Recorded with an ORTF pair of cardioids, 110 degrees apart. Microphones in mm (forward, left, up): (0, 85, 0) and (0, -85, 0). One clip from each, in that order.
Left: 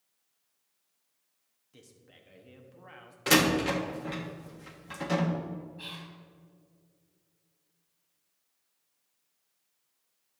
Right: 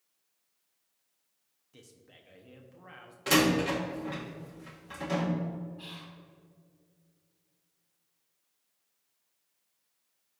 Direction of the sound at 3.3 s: 20° left.